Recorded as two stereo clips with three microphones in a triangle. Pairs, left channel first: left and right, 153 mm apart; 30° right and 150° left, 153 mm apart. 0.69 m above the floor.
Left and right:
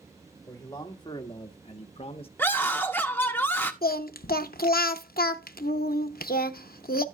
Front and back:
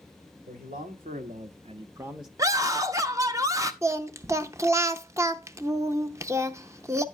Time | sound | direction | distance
0.5 | a man speaking | 155° left | 1.9 m
2.4 | a scream | 140° left | 0.8 m
3.8 | singing | 80° left | 0.5 m